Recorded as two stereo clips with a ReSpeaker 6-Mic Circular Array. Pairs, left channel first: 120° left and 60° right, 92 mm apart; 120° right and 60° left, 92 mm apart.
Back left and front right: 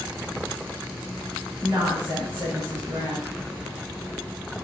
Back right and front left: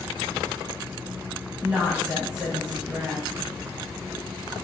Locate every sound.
1.6 s a woman speaking: 15° right, 1.2 m